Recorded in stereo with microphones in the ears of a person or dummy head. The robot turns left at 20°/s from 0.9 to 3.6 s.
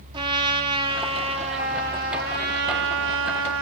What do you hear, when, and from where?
0.1 s a trumpet: 25° right, 0.7 m; by 3.6 s 80° right, 0.7 m